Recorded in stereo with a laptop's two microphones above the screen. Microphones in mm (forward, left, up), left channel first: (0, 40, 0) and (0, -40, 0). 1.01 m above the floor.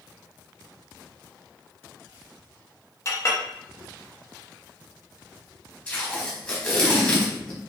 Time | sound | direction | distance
3.0 | a clink | 40° left (ahead or behind) | 0.7 m
5.9 | tape being pulled | 15° left (ahead or behind) | 0.8 m